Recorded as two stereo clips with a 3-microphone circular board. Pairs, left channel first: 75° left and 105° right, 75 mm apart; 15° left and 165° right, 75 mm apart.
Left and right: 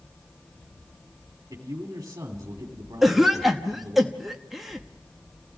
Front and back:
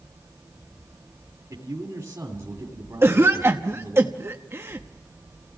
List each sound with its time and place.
1.5 s a man speaking: 125° right, 2 m
3.0 s a cough: 170° left, 1.0 m